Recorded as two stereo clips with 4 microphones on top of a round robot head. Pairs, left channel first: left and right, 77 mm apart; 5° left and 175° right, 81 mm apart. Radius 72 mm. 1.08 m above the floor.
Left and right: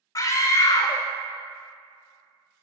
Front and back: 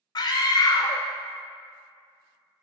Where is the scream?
50° left, 0.5 m.